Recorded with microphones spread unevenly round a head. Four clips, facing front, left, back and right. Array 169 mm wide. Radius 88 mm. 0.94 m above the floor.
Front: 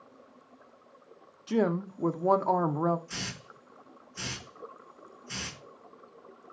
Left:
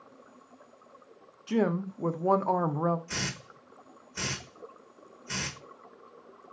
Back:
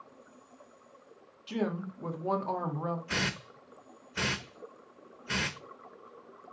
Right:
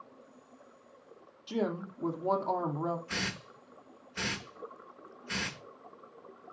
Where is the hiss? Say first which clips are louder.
Left 1 dB, back 7 dB; 170° left, 1.2 m.